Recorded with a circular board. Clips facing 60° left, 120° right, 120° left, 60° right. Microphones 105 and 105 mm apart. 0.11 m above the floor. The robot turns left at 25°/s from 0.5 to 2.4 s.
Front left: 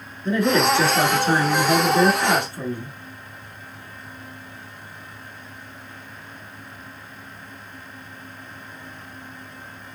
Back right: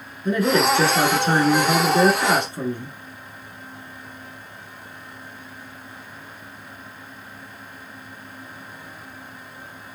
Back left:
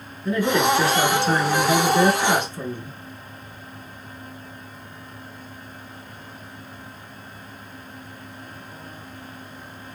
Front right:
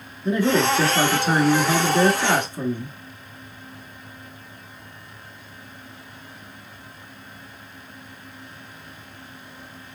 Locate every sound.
0.2 s a man speaking: 65° right, 1.1 m; by 2.9 s 115° right, 1.1 m